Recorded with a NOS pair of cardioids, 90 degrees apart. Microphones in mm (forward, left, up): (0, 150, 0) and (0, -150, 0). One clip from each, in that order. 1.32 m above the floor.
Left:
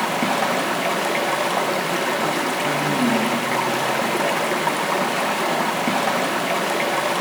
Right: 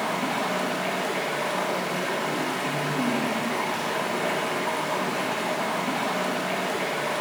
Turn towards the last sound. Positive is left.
turn(degrees=60)